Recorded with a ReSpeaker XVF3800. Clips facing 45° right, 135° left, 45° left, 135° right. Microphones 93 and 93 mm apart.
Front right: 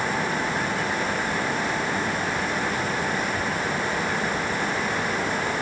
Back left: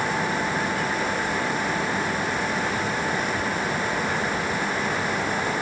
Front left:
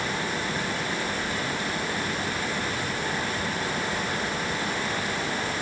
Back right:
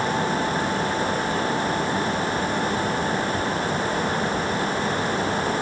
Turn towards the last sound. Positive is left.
No sound to turn to.